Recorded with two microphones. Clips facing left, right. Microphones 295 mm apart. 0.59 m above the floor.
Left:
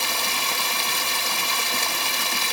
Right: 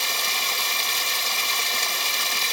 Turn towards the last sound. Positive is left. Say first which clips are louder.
# left 3 dB
turn(degrees=60)  # may be behind; listen again after turning